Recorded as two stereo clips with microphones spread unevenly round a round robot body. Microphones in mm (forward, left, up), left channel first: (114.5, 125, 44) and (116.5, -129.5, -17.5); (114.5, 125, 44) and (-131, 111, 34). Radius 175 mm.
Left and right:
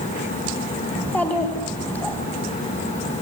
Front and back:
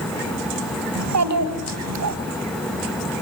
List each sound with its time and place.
0.9 s a child speaking: straight behind, 2.5 m